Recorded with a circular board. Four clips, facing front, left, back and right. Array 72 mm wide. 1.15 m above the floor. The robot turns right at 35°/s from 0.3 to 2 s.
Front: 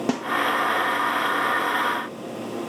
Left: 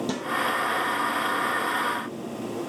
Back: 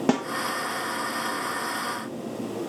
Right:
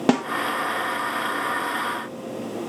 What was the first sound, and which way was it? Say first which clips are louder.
A snare drum: right 10 dB, back 3 dB; 100° right.